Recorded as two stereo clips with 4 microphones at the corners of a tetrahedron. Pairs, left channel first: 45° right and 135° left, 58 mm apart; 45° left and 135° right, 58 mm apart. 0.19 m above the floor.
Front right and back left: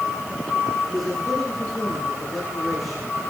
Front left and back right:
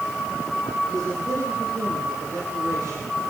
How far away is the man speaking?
About 7 m.